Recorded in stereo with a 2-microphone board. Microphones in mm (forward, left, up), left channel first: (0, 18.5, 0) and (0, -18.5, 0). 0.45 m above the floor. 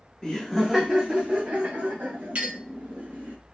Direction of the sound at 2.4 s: 40° right (ahead or behind).